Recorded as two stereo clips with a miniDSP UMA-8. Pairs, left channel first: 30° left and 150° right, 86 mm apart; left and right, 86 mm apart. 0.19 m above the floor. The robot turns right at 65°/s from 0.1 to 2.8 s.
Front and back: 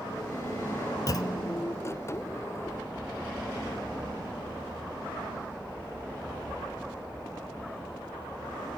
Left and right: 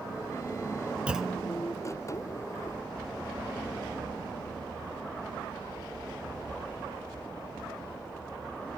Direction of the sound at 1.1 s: 15° right.